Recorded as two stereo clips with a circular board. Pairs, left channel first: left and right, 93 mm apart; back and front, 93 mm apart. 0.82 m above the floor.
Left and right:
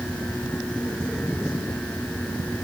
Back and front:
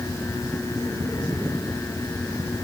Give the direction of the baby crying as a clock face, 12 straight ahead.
I don't hear a baby crying.